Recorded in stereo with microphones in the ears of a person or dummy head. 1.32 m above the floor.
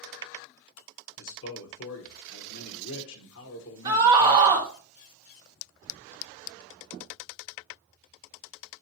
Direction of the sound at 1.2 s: 75° left (ahead or behind).